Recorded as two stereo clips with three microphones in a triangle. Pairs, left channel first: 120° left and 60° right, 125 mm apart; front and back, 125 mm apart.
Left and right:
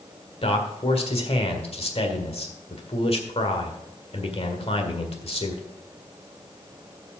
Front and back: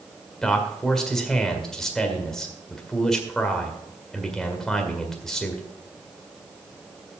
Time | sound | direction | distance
0.4 | a man speaking | 85° left | 1.7 m